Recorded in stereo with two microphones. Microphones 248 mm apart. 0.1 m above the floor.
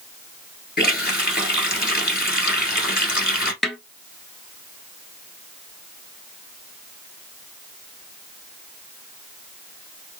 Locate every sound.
0.8 s a running tap: 40° left (ahead or behind), 1.3 m
3.6 s a snare drum: centre (ahead or behind), 0.6 m